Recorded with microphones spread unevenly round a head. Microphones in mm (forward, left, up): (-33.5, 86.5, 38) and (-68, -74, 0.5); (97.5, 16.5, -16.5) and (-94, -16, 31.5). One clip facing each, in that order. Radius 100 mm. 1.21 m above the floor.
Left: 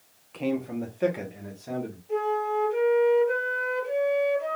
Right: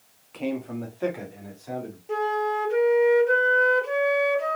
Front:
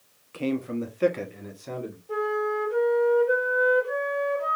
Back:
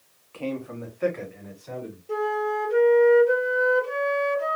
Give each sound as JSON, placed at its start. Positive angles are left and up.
{"t": 0.3, "sound": "a man speaking", "azimuth_deg": -30, "distance_m": 0.6}
{"t": 2.1, "sound": "a flute", "azimuth_deg": -120, "distance_m": 0.9}